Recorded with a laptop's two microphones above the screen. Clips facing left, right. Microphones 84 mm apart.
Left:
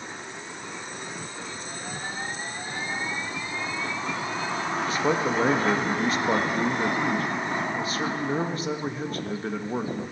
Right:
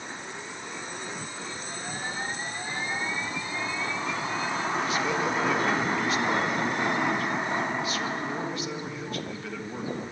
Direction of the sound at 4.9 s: 35° left (ahead or behind).